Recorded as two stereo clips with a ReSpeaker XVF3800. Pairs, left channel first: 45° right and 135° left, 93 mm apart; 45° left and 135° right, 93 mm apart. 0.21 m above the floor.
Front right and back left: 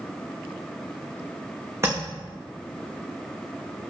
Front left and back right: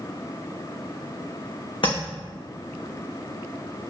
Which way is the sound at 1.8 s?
75° left.